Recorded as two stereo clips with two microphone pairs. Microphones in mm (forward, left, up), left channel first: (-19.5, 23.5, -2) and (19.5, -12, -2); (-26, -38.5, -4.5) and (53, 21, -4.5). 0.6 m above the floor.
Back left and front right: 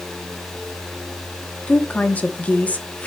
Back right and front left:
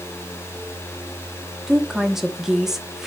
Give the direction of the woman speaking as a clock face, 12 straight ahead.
8 o'clock.